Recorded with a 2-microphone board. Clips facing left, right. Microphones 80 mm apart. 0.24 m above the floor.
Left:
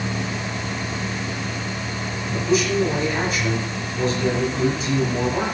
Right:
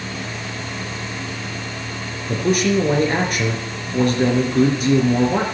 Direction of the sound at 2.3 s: 65° right (ahead or behind).